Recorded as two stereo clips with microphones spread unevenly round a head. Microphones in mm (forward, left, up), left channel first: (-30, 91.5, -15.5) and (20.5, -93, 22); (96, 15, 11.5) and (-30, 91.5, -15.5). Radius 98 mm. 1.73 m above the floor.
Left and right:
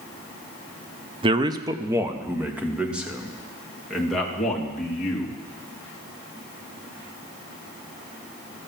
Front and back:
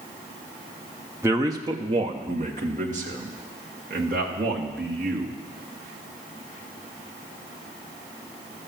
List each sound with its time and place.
1.2 s a man speaking: 130° right, 0.7 m; by 5.4 s 165° right, 3 m